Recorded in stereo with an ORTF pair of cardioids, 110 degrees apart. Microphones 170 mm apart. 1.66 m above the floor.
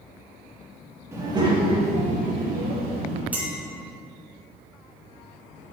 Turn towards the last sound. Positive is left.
turn(degrees=-10)